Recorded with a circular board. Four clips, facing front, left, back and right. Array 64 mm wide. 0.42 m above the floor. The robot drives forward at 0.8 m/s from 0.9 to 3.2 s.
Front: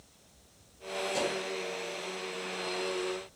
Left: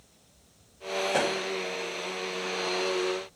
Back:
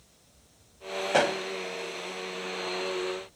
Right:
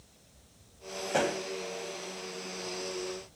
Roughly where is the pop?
Behind.